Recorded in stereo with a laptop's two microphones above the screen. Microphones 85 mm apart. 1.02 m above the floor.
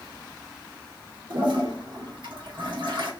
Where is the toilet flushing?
75° right (ahead or behind), 1.4 m.